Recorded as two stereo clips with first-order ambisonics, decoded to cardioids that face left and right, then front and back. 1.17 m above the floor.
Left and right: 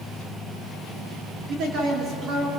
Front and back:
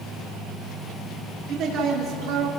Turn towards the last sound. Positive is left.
turn(degrees=-160)